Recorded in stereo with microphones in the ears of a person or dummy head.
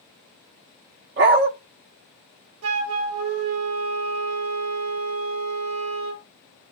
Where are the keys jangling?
I don't hear keys jangling.